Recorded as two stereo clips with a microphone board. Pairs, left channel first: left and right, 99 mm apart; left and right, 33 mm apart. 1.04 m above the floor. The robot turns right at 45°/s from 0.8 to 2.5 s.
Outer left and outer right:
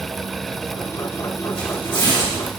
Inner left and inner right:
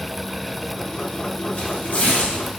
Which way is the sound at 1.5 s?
70° left (ahead or behind).